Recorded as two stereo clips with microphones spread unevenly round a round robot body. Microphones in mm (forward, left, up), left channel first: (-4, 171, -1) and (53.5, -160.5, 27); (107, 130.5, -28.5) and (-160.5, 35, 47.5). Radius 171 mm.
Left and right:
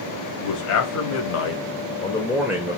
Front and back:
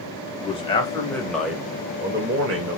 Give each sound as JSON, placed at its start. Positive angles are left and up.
{"t": 0.4, "sound": "a man speaking", "azimuth_deg": 80, "distance_m": 1.5}